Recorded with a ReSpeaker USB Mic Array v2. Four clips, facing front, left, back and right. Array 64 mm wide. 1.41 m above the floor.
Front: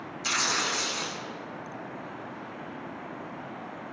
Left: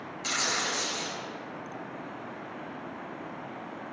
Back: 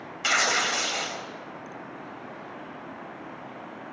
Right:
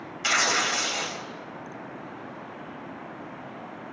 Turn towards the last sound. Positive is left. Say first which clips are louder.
# right 7 dB, back 5 dB
turn(degrees=-145)